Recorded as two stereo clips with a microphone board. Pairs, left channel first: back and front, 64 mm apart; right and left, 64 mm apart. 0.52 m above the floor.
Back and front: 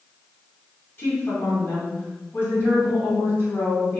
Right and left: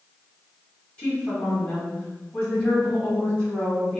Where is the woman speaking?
150° right, 1.6 m.